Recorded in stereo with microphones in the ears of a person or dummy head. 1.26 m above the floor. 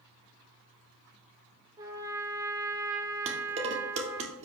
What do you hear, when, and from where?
1.8 s a trumpet: 25° right (ahead or behind), 2 m
3.3 s dishes clattering: 40° right (ahead or behind), 2 m